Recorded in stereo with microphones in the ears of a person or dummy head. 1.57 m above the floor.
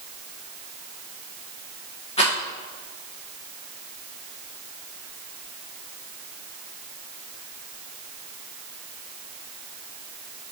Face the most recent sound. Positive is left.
turn(degrees=35)  # may be behind; listen again after turning